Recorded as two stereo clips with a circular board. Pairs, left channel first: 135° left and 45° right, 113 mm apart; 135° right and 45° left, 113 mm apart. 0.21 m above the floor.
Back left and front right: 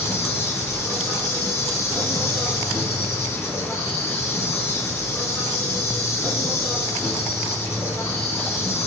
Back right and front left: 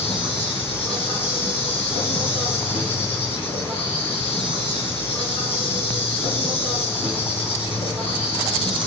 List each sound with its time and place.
0.0 s an insect: 160° right, 3 m